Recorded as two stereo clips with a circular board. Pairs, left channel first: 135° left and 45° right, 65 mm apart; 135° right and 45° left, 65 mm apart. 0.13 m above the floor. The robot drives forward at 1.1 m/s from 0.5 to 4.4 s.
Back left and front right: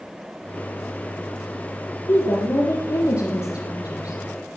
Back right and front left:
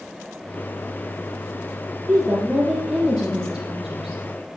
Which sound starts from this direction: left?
A woman speaking, at 2.1 s.